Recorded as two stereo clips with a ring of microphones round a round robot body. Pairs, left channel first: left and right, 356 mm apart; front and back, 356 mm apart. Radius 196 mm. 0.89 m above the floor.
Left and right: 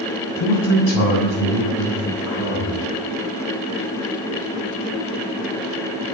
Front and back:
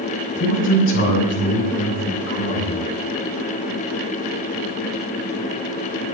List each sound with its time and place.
0.4 s a man speaking: 65° left, 6.5 m; by 2.8 s 40° left, 7 m